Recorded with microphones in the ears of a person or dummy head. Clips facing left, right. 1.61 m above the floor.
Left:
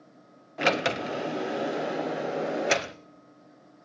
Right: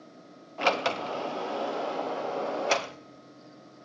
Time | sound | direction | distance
0.6 | a sliding door | 30° left (ahead or behind) | 0.6 m